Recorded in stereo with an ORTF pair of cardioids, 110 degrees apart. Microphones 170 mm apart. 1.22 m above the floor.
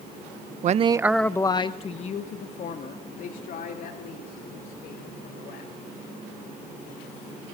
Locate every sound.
0.6 s a man speaking: 50° right, 0.7 m; by 5.7 s 60° left, 5 m